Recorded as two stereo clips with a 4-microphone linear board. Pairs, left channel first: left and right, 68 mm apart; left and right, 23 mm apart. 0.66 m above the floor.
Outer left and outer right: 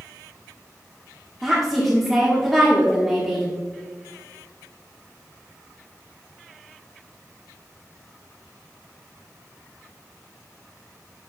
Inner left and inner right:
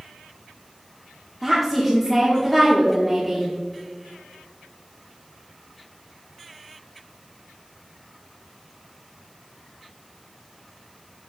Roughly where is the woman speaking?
Centre.